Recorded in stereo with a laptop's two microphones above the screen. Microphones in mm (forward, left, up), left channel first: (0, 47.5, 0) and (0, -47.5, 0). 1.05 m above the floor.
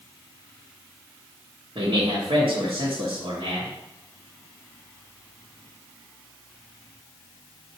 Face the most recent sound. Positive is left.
turn(degrees=-70)  # may be behind; listen again after turning